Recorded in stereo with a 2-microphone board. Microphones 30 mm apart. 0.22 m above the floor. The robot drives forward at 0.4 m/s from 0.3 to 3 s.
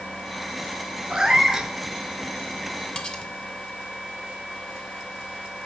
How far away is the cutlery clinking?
About 1.2 m.